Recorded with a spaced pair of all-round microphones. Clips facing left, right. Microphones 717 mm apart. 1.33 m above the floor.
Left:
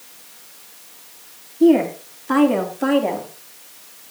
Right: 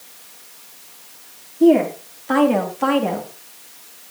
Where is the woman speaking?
5° right (ahead or behind), 3 m; by 3.3 s 45° right (ahead or behind), 2.5 m.